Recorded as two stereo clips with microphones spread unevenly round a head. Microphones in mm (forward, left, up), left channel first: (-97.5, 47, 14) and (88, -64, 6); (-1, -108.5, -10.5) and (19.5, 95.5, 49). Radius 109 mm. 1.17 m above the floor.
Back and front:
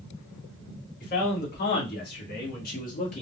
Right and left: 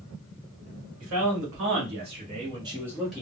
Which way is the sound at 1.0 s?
100° left.